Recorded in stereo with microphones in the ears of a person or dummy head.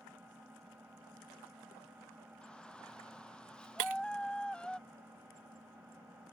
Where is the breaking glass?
45° right (ahead or behind).